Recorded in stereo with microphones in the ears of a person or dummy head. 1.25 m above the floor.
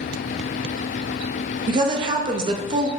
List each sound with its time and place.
1.7 s a woman speaking: 30° right (ahead or behind), 0.5 m